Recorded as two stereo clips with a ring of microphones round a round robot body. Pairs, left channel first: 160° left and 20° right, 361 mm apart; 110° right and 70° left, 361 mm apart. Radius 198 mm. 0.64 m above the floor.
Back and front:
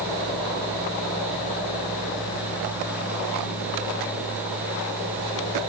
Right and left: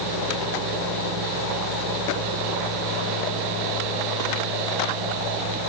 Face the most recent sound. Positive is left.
No sound to turn to.